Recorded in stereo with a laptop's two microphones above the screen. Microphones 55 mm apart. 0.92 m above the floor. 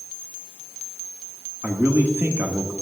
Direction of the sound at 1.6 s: 40° right (ahead or behind).